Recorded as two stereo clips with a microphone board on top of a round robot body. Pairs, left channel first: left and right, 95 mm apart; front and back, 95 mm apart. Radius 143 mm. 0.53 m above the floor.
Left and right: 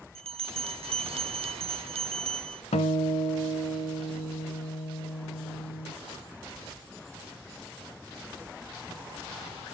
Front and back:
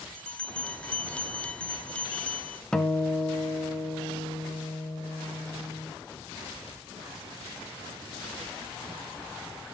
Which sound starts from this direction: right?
A bell, at 0.1 s.